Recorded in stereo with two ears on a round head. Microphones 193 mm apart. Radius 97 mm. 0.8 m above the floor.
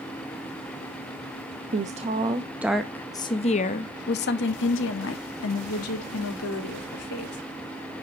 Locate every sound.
1.7 s a woman speaking: 40° right (ahead or behind), 0.9 m; by 7.4 s 75° left (ahead or behind), 2.5 m